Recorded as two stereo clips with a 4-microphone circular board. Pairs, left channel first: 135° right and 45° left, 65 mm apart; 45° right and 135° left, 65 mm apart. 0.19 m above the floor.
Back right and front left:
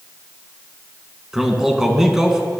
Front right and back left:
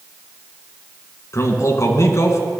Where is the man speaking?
35° right, 1.7 m.